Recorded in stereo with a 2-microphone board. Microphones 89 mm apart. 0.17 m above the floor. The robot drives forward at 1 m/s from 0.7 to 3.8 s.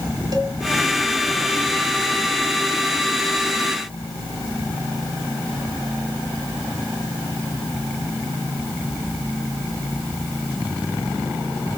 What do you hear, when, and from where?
0.3 s a cowbell: 50° right (ahead or behind), 0.9 m